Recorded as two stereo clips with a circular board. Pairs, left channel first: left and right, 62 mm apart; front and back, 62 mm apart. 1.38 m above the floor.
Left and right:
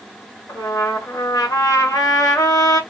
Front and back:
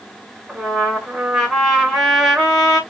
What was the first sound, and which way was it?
A trumpet, 95° left.